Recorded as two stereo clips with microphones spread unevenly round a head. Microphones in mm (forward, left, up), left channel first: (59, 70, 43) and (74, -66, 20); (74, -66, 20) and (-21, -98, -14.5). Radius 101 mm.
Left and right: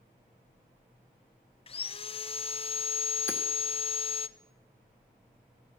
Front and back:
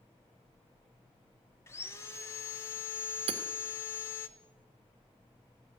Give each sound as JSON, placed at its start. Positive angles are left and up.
{"t": 1.7, "sound": "sawing", "azimuth_deg": 100, "distance_m": 0.9}
{"t": 3.3, "sound": "hammering", "azimuth_deg": 175, "distance_m": 1.7}